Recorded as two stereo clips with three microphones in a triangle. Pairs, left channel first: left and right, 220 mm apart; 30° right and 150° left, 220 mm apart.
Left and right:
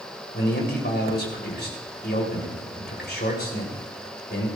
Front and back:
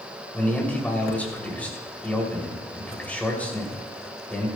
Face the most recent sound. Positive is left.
turn(degrees=55)